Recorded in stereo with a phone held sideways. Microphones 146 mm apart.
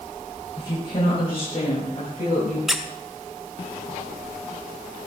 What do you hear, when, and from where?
0.6 s a woman speaking: 30° left (ahead or behind), 5 m; by 2.6 s 50° left (ahead or behind), 6.5 m
2.7 s a squeak: 5° right (ahead or behind), 0.6 m